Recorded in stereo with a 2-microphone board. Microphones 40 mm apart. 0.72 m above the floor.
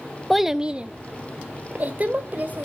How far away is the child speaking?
About 0.5 m.